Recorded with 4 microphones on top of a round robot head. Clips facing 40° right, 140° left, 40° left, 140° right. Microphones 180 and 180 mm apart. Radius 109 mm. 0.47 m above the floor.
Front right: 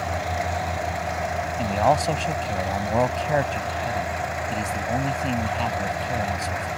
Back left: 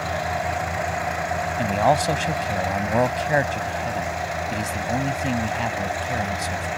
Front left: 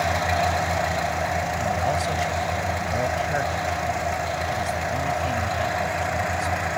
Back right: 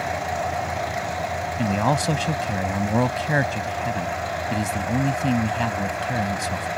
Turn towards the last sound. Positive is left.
turn(degrees=-140)